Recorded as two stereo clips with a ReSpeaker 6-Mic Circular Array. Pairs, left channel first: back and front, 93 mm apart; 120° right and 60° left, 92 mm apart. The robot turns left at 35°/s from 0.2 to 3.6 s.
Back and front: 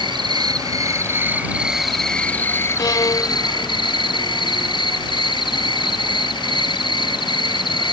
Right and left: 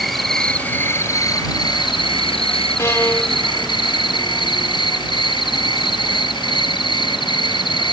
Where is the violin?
165° right; by 4.5 s 165° left.